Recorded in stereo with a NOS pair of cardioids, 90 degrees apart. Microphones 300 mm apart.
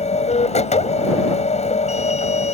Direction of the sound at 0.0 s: 20° left.